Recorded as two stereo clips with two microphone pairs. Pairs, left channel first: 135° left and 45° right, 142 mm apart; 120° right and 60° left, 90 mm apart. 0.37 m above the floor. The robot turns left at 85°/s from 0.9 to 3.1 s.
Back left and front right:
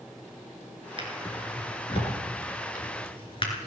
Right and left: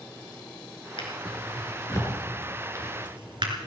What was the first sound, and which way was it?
A drawer, 95° right.